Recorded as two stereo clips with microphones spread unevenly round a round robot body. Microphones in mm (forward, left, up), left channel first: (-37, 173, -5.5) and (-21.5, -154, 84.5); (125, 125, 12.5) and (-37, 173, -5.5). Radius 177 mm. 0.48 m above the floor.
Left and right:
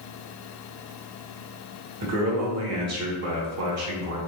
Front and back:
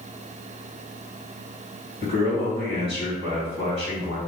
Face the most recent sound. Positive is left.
turn(degrees=-135)